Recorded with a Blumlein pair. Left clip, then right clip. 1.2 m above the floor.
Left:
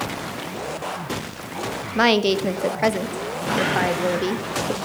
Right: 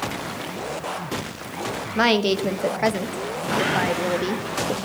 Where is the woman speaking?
5° left, 0.7 m.